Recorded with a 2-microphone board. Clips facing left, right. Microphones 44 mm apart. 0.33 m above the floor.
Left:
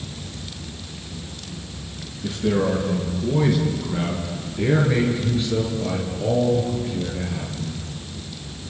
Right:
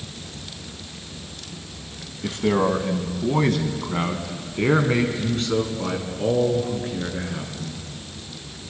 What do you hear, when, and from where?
2.2 s a man speaking: 55° right (ahead or behind), 2.5 m